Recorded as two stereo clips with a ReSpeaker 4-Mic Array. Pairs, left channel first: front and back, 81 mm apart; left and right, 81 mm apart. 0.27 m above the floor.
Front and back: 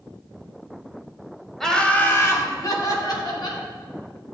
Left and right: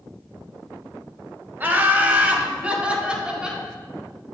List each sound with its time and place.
1.6 s laughter: 80° right, 1.0 m; by 3.6 s 10° right, 2.5 m